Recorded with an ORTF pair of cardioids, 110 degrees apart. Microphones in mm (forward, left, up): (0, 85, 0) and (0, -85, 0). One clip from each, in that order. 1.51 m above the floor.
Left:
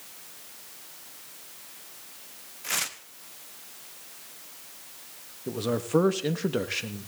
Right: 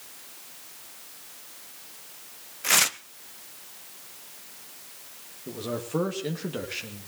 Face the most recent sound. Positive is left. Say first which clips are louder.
# left 4 dB
turn(degrees=30)